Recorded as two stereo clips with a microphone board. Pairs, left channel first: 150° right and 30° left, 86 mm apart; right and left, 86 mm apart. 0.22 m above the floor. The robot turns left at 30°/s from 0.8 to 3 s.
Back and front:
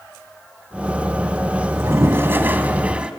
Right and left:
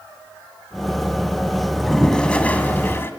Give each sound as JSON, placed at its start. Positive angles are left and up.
{"t": 1.7, "sound": "a toilet flushing", "azimuth_deg": 0, "distance_m": 1.2}